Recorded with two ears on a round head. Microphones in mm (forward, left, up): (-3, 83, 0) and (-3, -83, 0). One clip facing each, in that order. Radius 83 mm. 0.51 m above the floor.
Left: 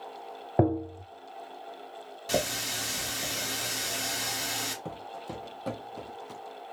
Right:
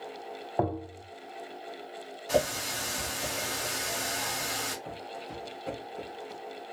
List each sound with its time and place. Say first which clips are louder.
0.6 s tapping: left 5 dB; 30° left (ahead or behind), 0.6 m
2.3 s a running tap: right 3 dB; 40° left (ahead or behind), 1.5 m
4.8 s footsteps: left 1 dB; 50° left (ahead or behind), 0.8 m; by 6.4 s 70° left (ahead or behind), 1.6 m